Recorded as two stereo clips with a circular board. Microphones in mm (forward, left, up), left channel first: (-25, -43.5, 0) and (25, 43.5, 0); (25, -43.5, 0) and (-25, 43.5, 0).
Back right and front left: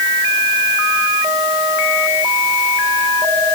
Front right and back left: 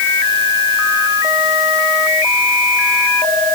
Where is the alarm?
I don't hear an alarm.